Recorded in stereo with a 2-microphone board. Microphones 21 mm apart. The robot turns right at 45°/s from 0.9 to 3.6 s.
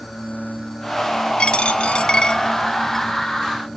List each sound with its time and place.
1.4 s a dropped coin: 65° left (ahead or behind), 0.5 m; by 3.0 s 15° left (ahead or behind), 0.5 m